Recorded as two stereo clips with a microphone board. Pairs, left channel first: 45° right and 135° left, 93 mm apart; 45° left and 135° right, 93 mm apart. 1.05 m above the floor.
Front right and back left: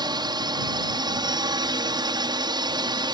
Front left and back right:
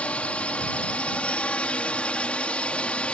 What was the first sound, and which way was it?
A drone, 120° left.